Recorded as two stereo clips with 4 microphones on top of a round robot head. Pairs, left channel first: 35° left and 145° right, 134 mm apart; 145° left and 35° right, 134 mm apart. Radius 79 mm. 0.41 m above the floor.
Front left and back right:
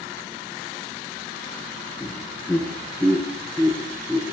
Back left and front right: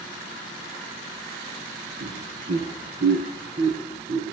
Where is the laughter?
50° right, 5.5 m; by 4.3 s 65° right, 6 m.